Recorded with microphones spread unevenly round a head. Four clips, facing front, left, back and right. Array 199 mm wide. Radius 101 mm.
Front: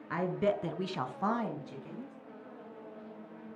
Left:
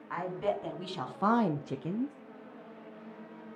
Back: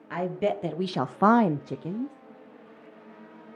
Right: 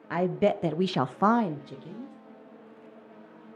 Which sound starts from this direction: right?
A woman speaking, at 0.1 s.